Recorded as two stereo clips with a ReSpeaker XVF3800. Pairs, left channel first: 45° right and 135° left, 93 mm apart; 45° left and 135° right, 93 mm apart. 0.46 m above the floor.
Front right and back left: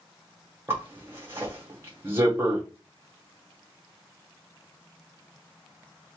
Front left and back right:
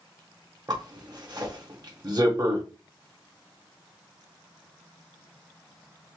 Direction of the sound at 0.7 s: 165° right.